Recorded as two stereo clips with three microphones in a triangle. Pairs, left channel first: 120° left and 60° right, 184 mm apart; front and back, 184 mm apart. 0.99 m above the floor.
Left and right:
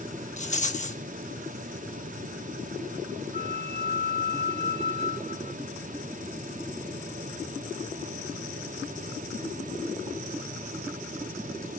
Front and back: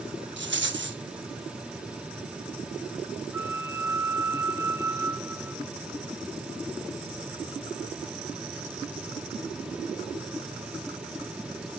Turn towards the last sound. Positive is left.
turn(degrees=105)